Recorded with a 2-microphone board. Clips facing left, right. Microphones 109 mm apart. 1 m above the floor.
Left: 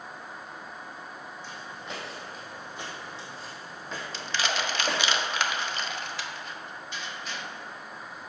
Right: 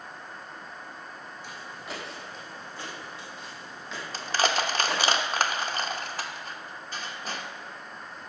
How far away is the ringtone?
I don't hear a ringtone.